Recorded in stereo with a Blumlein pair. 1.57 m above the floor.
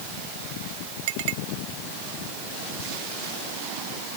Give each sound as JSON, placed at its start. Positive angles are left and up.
{"t": 1.1, "sound": "a clink", "azimuth_deg": -50}